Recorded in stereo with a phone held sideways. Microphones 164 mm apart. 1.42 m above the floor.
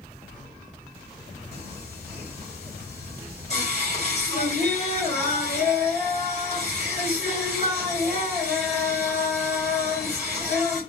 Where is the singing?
40° left (ahead or behind), 3 m.